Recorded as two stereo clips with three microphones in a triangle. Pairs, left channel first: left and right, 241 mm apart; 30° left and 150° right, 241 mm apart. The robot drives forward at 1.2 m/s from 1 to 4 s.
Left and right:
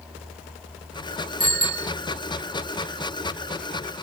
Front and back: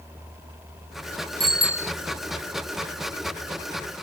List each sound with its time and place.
1.4 s a bicycle bell: 95° left; by 1.9 s 110° left